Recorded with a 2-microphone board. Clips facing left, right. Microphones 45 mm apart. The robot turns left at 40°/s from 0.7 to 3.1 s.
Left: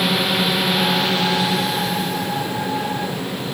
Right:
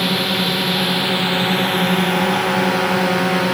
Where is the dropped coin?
No dropped coin in this recording.